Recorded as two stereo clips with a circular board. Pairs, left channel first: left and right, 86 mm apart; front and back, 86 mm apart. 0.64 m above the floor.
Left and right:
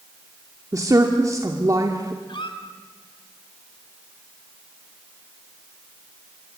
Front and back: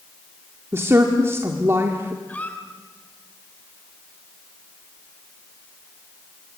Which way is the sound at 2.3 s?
70° left.